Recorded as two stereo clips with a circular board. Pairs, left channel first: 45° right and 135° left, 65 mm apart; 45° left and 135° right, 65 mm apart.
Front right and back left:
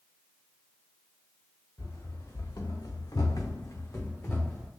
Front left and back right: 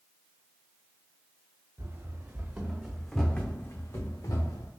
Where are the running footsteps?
85° right, 1.2 m; by 4.7 s 30° left, 1.2 m.